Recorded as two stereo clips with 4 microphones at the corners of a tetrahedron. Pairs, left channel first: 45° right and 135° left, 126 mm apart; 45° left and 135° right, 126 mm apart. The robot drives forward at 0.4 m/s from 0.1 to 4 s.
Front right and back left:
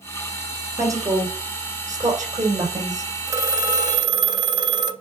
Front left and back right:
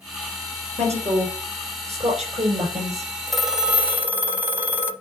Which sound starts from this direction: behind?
A woman speaking, at 0.8 s.